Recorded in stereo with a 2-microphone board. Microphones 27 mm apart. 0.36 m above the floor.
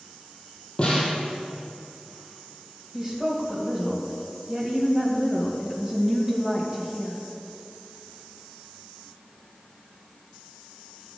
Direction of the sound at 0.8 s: 40° left (ahead or behind).